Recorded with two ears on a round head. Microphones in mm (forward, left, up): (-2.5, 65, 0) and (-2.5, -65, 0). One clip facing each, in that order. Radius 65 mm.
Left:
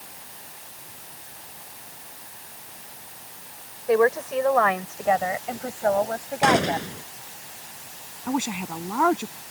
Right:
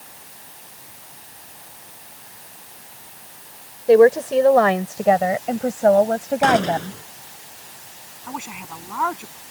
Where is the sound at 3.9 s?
35° right (ahead or behind); by 7.0 s 50° right (ahead or behind).